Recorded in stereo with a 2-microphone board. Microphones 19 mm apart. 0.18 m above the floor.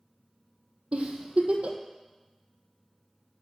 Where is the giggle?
70° right (ahead or behind), 1.2 m.